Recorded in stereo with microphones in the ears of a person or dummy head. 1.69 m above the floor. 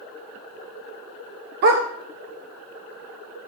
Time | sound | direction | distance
1.6 | a dog barking | 50° right (ahead or behind) | 1.9 m